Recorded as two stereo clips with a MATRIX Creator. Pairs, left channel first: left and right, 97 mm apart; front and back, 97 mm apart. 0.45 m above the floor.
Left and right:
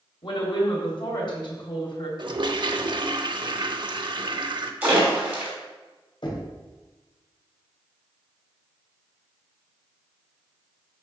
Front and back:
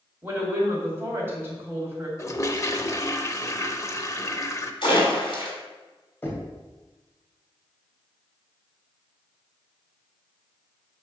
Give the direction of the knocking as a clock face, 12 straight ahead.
10 o'clock.